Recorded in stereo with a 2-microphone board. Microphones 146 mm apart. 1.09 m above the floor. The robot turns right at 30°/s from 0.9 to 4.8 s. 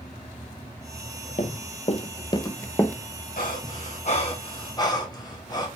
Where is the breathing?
70° left (ahead or behind), 3 m; by 5.7 s 25° left (ahead or behind), 3 m.